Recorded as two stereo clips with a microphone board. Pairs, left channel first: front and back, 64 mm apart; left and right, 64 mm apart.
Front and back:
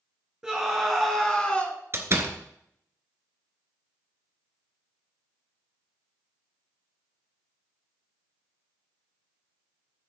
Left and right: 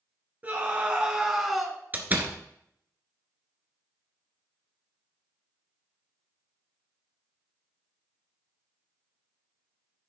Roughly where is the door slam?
Behind right.